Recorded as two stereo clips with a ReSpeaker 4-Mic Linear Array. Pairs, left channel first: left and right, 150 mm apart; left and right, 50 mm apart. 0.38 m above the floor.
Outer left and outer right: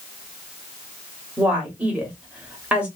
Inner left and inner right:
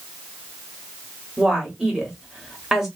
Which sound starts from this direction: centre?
A woman speaking, at 1.4 s.